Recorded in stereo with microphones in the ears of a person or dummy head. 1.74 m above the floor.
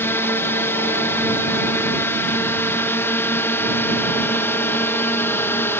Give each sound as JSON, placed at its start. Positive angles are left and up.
{"t": 0.0, "sound": "a drone", "side_deg": 10}